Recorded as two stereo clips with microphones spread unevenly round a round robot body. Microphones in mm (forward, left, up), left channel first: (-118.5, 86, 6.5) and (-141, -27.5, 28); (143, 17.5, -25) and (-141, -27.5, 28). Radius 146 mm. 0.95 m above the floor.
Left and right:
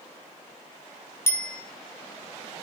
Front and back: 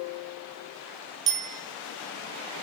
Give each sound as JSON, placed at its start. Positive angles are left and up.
{"t": 1.3, "sound": "a bicycle bell", "azimuth_deg": 150, "distance_m": 5.5}